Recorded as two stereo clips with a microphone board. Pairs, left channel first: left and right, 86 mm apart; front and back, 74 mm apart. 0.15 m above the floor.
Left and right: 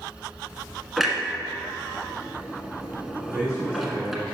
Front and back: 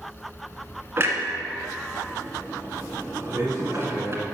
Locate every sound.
1.0 s a clunk: 175° right, 1.4 m
3.2 s a man speaking: 135° right, 3 m